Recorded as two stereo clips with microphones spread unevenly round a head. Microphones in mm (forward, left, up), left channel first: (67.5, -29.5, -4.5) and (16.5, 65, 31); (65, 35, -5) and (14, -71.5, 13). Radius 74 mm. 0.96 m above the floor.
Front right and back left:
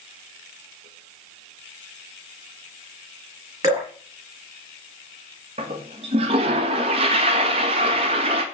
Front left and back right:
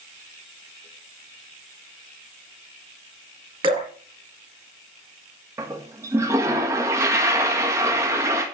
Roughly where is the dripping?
Behind.